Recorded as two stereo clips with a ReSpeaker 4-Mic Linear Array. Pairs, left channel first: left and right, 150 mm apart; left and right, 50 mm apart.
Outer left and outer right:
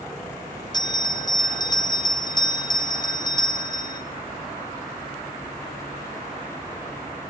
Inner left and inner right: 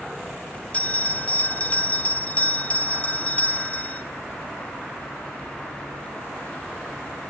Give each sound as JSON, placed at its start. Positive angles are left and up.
{"t": 0.7, "sound": "a bell", "side_deg": 25, "distance_m": 0.5}